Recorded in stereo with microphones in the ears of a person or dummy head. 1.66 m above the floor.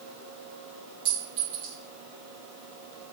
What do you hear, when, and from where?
1.1 s a clink: 30° right (ahead or behind), 1.1 m